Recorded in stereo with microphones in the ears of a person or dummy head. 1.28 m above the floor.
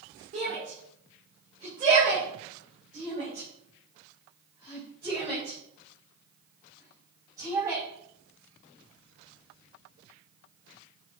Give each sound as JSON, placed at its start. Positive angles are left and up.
{"t": 0.3, "sound": "a shout", "side_deg": -40, "distance_m": 3.5}